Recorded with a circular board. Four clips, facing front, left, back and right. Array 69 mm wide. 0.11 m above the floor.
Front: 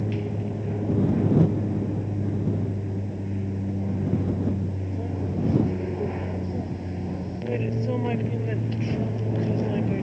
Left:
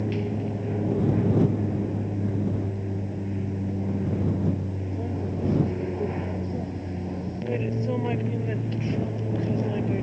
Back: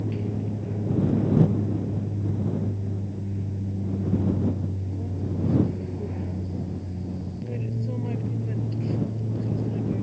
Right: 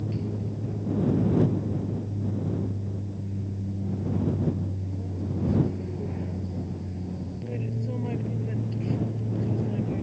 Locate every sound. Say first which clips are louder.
0.0 s an aircraft: left 4 dB, front 1 dB; 65° left; by 10.0 s 40° left